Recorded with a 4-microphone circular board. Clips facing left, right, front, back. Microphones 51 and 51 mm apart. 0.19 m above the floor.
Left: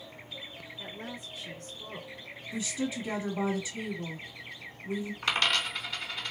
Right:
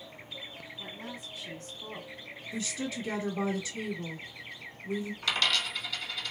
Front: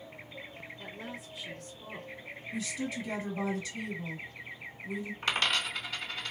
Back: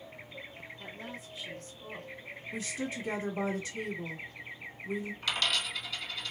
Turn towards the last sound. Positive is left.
turn(degrees=45)